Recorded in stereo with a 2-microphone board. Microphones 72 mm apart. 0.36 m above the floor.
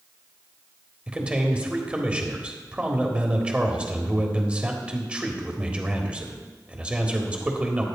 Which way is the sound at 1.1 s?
15° right (ahead or behind).